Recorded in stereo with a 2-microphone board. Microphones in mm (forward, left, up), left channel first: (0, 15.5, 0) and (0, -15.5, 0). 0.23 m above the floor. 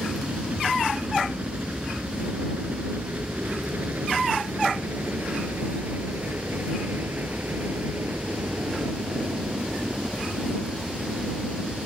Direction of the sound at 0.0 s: 50° right (ahead or behind).